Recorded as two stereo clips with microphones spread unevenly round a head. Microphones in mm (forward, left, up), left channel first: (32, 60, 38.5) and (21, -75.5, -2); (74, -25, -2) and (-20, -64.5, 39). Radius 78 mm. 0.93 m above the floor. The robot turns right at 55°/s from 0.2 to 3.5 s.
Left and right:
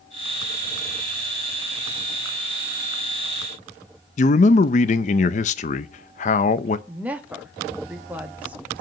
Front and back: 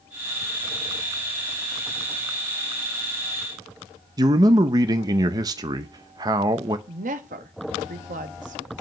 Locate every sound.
4.2 s a man speaking: 130° left, 0.6 m
6.9 s a woman speaking: 170° right, 1.3 m